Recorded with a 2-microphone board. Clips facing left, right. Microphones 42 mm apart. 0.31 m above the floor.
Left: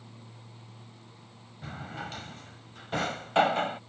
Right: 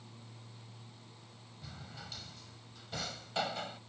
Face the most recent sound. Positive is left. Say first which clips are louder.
# left 11 dB
turn(degrees=45)  # may be behind; listen again after turning